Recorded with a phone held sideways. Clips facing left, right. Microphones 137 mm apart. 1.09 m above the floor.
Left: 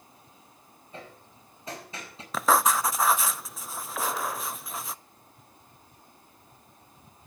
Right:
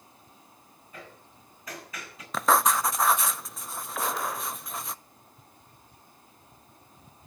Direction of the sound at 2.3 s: Centre (ahead or behind).